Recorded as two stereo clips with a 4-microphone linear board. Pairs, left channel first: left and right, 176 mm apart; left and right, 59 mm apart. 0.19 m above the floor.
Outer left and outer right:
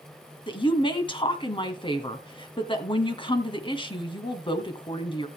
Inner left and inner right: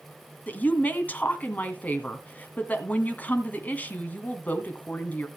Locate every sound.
0.5 s a woman speaking: 30° left (ahead or behind), 1.6 m